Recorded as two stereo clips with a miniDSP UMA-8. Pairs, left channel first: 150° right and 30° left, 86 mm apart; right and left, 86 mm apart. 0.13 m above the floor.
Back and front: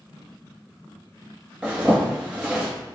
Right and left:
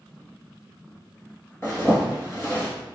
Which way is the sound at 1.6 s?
45° right.